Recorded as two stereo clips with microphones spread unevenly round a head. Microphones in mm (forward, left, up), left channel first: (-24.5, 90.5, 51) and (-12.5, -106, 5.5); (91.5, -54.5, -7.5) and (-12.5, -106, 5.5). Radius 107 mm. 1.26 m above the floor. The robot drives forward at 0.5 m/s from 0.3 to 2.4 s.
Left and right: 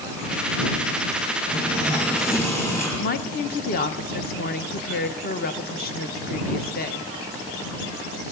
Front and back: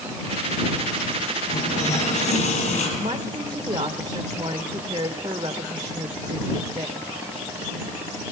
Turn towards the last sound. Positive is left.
turn(degrees=140)